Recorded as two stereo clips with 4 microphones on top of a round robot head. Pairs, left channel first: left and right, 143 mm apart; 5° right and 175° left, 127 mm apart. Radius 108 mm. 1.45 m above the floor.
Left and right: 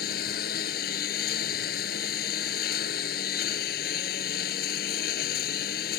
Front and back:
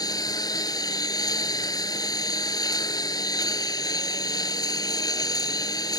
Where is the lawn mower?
55° left.